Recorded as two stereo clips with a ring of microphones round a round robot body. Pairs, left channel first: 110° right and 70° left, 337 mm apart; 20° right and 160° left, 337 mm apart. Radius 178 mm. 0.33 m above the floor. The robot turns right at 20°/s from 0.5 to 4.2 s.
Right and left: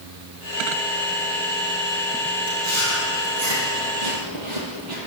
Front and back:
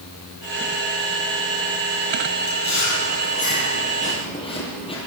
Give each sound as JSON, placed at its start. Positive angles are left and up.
{"t": 2.5, "sound": "chewing", "azimuth_deg": 15, "distance_m": 9.5}